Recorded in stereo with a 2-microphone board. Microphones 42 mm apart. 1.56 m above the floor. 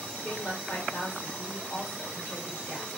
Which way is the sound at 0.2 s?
55° left (ahead or behind).